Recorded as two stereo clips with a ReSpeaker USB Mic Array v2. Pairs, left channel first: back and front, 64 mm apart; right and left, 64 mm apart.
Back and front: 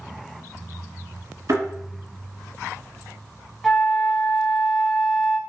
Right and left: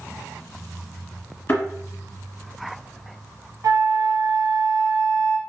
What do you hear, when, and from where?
1.5 s a thud: 30° right, 1.3 m
3.6 s a flute: 90° left, 0.6 m